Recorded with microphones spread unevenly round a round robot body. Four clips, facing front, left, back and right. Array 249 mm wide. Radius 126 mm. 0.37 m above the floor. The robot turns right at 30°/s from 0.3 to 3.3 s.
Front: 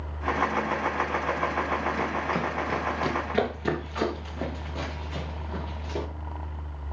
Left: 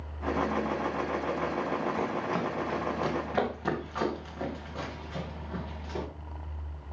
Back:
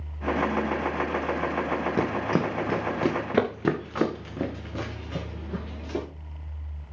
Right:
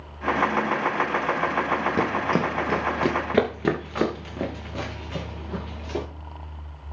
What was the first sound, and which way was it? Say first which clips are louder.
Running footsteps: right 7 dB, back 3 dB; 135° right.